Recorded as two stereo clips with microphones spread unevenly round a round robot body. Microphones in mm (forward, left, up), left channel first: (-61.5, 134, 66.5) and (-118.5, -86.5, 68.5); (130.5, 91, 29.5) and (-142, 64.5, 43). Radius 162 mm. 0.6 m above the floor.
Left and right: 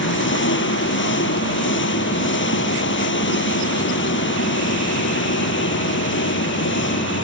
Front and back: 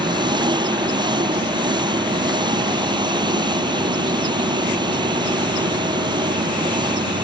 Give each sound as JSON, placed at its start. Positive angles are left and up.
{"t": 0.0, "sound": "an engine running", "azimuth_deg": 110}